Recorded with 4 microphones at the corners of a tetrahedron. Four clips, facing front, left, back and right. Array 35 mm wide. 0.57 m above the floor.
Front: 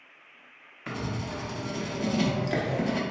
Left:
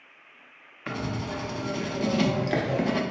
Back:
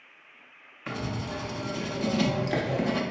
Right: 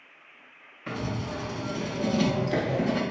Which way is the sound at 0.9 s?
90° left.